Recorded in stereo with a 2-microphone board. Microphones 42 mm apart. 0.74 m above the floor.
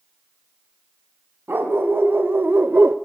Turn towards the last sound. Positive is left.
turn(degrees=-55)  # may be behind; listen again after turning